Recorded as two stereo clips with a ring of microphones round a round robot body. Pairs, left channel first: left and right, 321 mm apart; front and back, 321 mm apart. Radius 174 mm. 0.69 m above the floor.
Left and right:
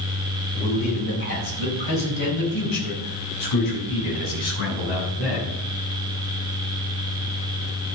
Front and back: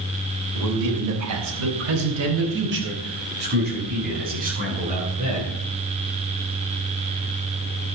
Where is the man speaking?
165° left, 3.5 m; by 5.5 s 110° left, 9.5 m.